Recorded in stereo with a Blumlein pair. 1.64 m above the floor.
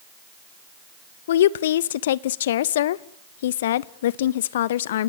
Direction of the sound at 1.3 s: 60° left.